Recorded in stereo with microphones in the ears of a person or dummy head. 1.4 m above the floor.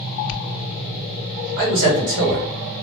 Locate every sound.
1.6 s a man speaking: 60° right (ahead or behind), 1.0 m